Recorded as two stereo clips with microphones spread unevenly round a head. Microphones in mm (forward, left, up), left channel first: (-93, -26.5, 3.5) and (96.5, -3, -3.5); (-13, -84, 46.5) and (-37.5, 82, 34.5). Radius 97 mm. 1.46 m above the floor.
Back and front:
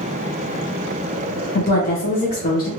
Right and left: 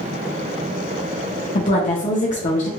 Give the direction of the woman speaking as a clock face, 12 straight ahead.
4 o'clock.